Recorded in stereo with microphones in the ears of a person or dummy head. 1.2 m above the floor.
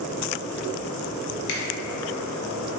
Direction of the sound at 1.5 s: 60° left (ahead or behind).